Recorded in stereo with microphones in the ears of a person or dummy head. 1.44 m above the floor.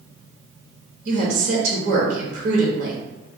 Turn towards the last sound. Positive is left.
turn(degrees=-75)  # may be behind; listen again after turning